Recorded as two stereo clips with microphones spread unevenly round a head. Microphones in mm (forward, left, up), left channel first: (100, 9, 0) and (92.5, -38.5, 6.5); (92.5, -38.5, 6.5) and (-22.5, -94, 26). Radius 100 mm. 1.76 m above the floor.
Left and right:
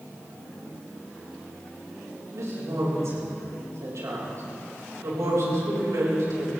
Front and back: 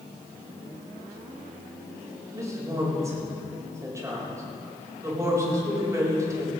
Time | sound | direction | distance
2.3 | a woman speaking | 90° right | 7 m